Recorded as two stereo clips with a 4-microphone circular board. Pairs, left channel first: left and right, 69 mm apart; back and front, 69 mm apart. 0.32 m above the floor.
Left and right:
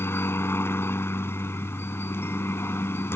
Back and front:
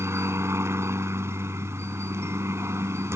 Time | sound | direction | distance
0.0 | a helicopter | 40° left | ?